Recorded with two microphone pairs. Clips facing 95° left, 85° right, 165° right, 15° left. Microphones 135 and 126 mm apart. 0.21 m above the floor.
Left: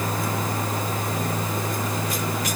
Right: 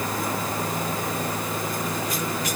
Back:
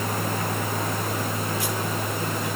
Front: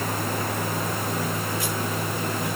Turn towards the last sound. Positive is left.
No sound to turn to.